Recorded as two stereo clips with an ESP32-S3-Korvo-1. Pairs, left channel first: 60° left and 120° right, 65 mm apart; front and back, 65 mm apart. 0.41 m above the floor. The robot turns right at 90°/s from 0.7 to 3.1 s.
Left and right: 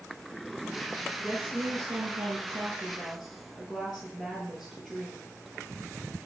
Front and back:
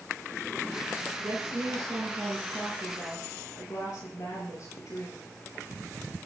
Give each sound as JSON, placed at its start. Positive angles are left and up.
{"t": 1.2, "sound": "a woman speaking", "azimuth_deg": 160, "distance_m": 6.5}